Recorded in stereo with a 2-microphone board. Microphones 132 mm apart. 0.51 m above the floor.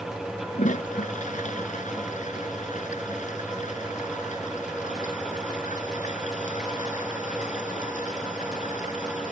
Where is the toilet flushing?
70° left (ahead or behind).